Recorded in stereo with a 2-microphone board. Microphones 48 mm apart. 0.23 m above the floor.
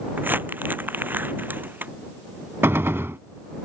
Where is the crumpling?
40° right (ahead or behind).